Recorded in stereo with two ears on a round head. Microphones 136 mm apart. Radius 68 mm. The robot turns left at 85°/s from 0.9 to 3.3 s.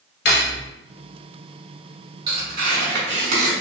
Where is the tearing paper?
30° right, 1.8 m; by 3.5 s 120° right, 1.8 m.